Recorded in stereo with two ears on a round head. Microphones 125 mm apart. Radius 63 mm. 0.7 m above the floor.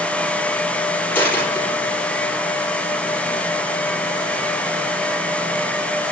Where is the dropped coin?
15° left (ahead or behind), 5.5 m.